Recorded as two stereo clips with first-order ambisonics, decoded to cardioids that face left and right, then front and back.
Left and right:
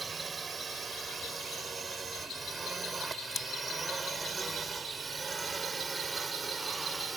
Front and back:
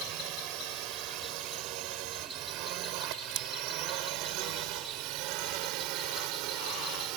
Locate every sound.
0.0 s a drone: 165° right; by 7.2 s 170° right
3.3 s scissors: 165° left